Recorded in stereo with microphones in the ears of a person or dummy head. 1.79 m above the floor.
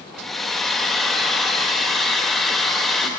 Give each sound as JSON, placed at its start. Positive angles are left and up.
{"t": 0.1, "sound": "a hair dryer", "side_deg": 0, "distance_m": 1.8}